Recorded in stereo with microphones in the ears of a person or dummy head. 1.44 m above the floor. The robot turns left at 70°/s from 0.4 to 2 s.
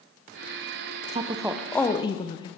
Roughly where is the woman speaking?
Behind right.